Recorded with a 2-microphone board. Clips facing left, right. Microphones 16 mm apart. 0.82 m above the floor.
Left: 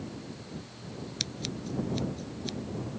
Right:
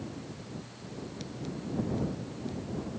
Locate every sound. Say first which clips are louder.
1.2 s scissors: left 6 dB; 65° left (ahead or behind)